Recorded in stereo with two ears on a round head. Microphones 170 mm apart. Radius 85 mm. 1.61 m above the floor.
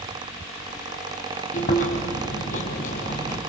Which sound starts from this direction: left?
Chewing, at 1.5 s.